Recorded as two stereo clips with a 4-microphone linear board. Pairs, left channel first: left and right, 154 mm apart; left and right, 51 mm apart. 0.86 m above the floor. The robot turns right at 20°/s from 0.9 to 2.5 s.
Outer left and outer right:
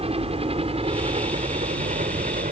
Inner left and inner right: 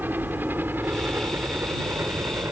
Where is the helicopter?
45° right (ahead or behind); by 2.5 s 65° right (ahead or behind).